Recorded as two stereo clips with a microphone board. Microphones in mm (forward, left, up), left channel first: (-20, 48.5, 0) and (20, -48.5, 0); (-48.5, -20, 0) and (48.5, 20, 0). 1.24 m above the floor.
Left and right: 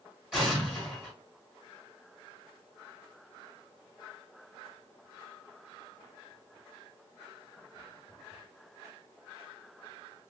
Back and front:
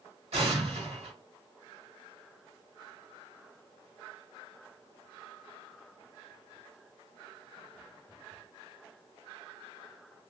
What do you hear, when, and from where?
0.3 s an explosion: 20° left, 1.6 m